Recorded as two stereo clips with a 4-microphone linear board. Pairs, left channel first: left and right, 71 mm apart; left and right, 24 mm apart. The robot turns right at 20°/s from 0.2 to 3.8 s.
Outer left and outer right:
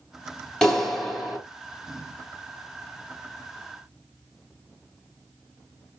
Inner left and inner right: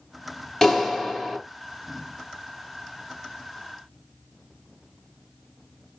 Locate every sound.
0.6 s a clap: 10° left (ahead or behind), 1.8 m; by 1.4 s 5° right (ahead or behind), 1.8 m